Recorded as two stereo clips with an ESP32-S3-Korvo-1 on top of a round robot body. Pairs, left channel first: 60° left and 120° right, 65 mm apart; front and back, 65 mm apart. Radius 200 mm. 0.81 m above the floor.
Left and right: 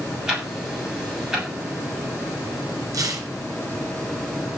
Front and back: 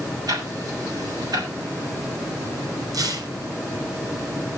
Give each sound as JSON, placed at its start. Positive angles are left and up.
{"t": 0.3, "sound": "ticking", "azimuth_deg": 160, "distance_m": 7.5}
{"t": 2.9, "sound": "tearing paper", "azimuth_deg": -155, "distance_m": 3.5}